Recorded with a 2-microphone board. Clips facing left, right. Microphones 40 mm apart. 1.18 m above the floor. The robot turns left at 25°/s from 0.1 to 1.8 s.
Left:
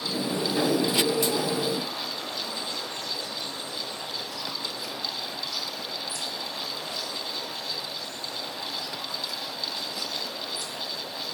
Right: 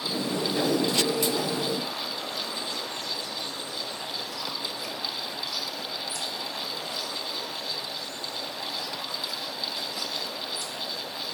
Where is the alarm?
I don't hear an alarm.